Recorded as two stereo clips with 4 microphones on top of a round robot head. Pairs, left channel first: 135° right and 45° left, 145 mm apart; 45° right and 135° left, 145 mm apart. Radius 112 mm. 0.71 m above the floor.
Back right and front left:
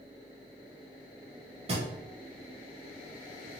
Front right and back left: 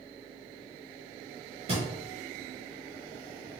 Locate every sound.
1.7 s a thud: 90° left, 0.7 m